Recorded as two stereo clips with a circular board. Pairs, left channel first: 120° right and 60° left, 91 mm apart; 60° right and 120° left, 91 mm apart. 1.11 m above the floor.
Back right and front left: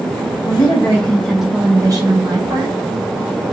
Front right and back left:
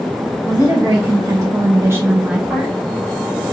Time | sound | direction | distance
0.4 | a woman speaking | 170° right | 1.2 m